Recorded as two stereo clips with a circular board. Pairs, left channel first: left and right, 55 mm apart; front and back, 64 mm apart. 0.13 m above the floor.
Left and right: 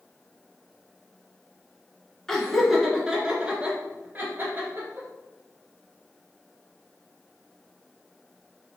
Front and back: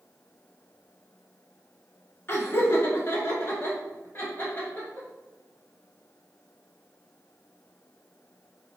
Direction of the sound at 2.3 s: 15° left.